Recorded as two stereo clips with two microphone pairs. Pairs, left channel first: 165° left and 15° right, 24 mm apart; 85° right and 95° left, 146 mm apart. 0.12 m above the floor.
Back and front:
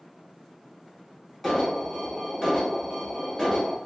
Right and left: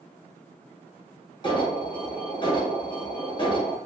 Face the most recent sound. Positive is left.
turn(degrees=-115)